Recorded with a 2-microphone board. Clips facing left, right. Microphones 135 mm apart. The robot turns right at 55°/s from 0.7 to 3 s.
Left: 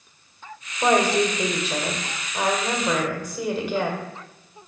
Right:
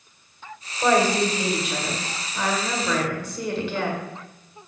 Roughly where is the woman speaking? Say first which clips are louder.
Even; ahead left.